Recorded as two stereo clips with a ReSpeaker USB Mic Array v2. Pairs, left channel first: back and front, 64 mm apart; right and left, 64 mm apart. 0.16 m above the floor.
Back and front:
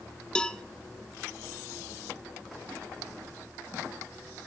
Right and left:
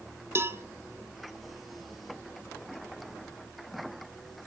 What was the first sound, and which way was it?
A cowbell, 110° left.